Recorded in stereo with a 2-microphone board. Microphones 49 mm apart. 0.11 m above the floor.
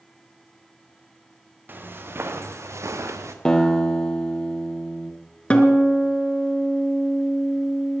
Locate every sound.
1.7 s footsteps: 45° right (ahead or behind), 2 m; by 3.4 s 75° right (ahead or behind), 1.6 m
3.5 s a guitar: 15° left (ahead or behind), 1.7 m
5.5 s a guitar: 25° left (ahead or behind), 1.6 m